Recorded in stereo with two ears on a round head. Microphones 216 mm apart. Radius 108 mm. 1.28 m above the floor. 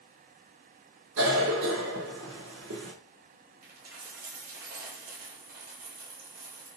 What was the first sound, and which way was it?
A cough, 55° right (ahead or behind).